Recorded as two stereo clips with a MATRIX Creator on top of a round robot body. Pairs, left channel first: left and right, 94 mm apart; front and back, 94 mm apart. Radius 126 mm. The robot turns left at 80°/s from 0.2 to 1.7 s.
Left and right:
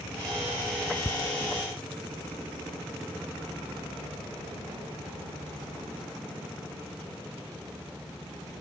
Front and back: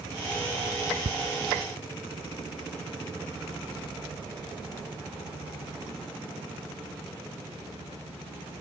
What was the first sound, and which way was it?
Ticking, 155° left.